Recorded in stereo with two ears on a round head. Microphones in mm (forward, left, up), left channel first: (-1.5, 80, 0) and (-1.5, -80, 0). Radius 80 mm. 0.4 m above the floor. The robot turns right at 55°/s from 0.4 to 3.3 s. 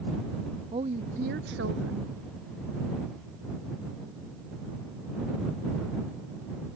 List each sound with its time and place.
0.7 s a woman speaking: 155° right; by 2.1 s 75° right